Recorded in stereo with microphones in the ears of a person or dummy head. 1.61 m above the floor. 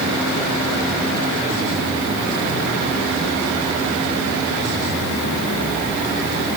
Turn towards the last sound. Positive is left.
No sound to turn to.